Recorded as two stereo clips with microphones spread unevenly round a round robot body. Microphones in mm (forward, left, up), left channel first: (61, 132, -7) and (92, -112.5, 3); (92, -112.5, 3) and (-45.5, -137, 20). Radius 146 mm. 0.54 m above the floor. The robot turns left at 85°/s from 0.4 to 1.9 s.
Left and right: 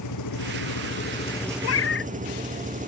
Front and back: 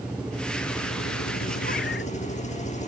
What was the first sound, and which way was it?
An engine running, 105° left.